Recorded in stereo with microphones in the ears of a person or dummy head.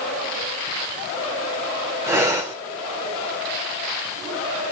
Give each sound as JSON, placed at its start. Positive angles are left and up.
{"t": 2.1, "sound": "breathing", "side_deg": -5, "distance_m": 0.7}